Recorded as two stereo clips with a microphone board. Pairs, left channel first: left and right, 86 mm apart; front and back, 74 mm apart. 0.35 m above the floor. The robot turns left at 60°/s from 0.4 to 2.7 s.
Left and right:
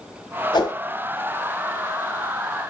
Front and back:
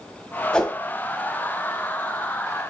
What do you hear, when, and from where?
0.5 s a whoosh: 80° left, 1.3 m; by 0.8 s 65° left, 1.3 m